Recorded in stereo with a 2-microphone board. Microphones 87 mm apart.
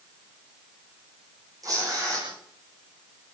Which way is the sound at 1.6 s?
40° right (ahead or behind).